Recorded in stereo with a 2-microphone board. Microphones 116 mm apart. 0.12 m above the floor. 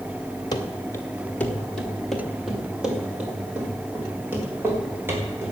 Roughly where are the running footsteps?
Left.